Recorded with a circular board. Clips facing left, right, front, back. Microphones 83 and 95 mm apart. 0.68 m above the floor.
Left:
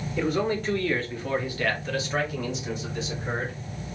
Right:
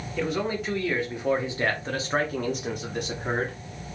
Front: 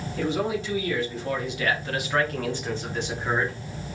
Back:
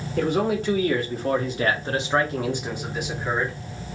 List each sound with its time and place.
0.2 s a man speaking: 175° left, 1.8 m; by 3.6 s 85° right, 1.8 m